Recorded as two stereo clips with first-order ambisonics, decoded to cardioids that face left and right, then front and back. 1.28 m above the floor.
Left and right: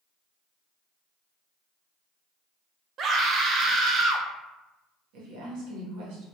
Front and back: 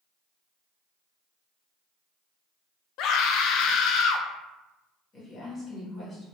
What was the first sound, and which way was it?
A scream, 35° right.